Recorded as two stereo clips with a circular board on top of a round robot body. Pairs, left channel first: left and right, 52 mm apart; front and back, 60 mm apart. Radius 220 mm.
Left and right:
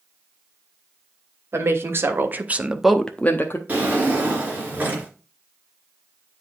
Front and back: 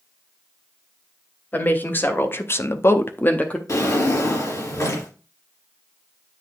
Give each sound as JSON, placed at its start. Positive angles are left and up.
{"t": 1.5, "sound": "a woman speaking", "azimuth_deg": -60, "distance_m": 2.0}
{"t": 3.7, "sound": "a drawer", "azimuth_deg": -30, "distance_m": 3.0}